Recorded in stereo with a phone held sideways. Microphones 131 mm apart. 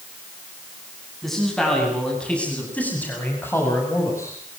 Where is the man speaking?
Centre (ahead or behind), 8.5 m; by 4.4 s 25° left (ahead or behind), 6.5 m.